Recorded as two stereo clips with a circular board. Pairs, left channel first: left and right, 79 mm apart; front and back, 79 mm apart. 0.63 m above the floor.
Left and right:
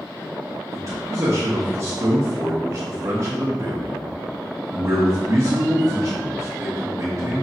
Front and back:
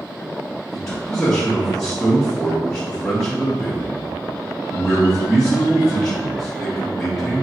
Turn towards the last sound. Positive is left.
turn(degrees=-80)